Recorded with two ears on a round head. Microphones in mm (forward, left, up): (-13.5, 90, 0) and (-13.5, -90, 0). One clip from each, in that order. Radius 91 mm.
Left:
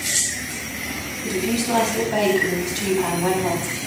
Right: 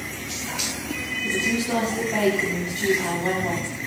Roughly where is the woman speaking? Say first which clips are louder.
Left 1 dB; left.